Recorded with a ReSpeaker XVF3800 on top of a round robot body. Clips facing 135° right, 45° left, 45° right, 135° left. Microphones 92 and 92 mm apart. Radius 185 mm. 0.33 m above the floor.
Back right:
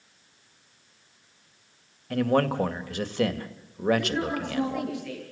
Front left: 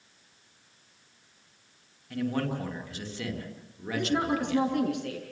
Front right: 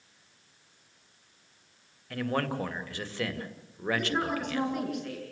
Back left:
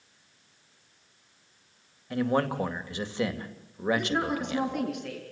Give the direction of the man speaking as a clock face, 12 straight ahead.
5 o'clock.